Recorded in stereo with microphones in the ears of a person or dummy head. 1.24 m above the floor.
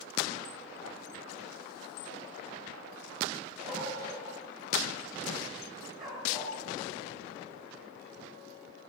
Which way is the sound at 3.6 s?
35° right (ahead or behind).